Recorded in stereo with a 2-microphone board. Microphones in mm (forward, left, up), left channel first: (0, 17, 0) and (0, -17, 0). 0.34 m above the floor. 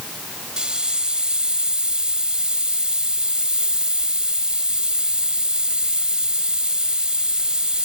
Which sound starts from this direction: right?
A hiss, at 0.6 s.